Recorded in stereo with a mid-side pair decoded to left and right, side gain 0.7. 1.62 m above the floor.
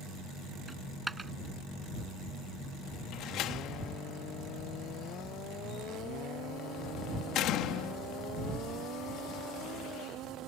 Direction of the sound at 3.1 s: 55° left.